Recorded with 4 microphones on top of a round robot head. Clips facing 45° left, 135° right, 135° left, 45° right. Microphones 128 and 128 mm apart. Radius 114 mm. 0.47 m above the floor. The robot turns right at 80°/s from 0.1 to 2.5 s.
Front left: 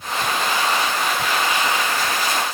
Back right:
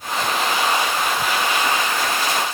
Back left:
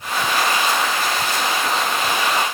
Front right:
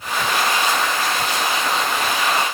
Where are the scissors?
I don't hear scissors.